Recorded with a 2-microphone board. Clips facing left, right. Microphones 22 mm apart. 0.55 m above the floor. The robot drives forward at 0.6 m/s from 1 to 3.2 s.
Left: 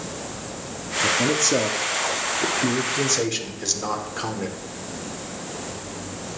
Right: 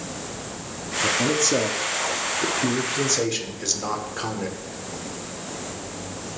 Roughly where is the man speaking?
Centre.